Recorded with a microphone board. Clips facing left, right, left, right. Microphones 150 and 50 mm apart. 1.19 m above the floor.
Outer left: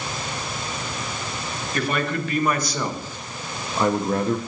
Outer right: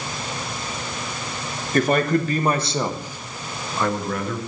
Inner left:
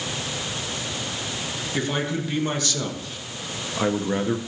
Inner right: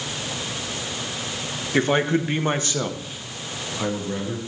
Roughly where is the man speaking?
Right.